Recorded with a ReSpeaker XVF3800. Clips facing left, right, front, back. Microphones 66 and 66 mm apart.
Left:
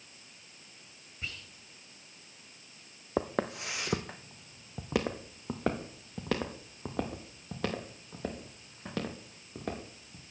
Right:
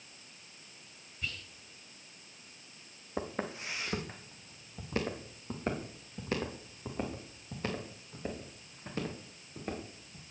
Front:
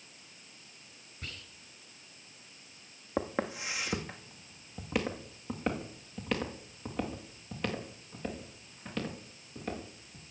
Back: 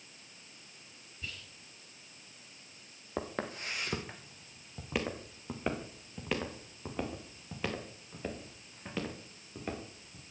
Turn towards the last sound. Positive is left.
turn(degrees=100)